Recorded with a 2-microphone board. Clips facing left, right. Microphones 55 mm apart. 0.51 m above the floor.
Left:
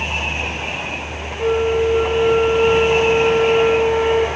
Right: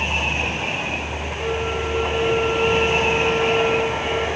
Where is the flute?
30° left (ahead or behind), 2.5 m.